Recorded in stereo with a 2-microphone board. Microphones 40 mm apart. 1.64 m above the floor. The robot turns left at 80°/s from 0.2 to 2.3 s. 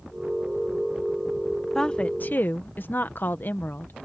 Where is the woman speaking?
170° left; by 3.9 s 125° left.